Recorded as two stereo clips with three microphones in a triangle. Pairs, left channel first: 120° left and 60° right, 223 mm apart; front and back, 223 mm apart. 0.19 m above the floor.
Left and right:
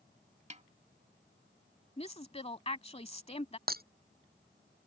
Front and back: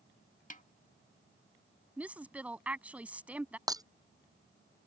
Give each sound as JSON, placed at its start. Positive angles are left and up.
{"t": 0.5, "sound": "a snare drum", "azimuth_deg": -25}
{"t": 2.0, "sound": "a woman speaking", "azimuth_deg": 105}
{"t": 3.7, "sound": "breaking glass", "azimuth_deg": -105}